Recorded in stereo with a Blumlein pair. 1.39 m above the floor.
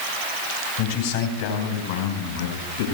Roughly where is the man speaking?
Ahead left.